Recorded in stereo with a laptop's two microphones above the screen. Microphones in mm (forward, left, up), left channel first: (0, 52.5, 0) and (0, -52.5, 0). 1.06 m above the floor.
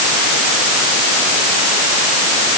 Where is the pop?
No pop in this recording.